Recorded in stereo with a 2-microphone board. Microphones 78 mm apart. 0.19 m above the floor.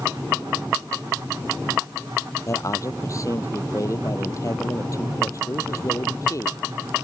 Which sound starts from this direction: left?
A man speaking, at 2.5 s.